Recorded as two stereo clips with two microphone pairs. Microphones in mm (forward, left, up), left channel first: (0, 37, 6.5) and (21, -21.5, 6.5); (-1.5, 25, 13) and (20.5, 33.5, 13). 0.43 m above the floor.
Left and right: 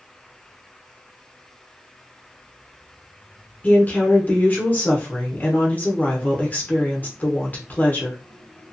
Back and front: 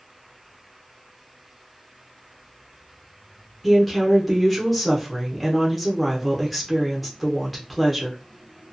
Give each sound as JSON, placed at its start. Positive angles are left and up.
{"t": 3.6, "sound": "a woman speaking", "azimuth_deg": 115, "distance_m": 0.9}